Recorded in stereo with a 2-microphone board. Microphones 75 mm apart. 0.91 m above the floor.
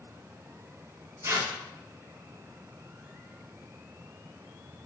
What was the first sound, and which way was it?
Tearing paper, 45° right (ahead or behind).